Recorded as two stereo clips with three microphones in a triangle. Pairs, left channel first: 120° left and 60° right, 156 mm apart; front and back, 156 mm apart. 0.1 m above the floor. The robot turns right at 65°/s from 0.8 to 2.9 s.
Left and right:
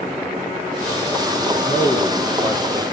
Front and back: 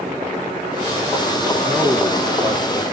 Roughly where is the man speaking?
Left.